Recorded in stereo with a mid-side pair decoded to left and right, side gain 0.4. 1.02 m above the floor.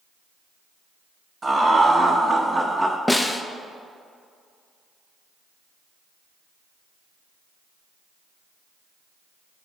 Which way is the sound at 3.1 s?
10° left.